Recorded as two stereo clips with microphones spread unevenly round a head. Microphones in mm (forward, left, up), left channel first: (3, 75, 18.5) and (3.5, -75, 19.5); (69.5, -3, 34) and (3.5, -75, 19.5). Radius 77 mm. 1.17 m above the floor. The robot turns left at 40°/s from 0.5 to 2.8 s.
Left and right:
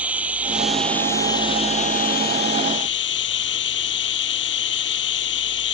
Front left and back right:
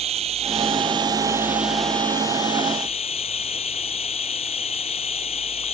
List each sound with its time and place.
0.0 s running water: 170° right; by 5.8 s 95° left